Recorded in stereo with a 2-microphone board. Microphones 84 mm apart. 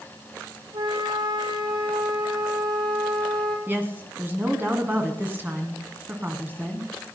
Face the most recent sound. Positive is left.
turn(degrees=-25)  # may be behind; listen again after turning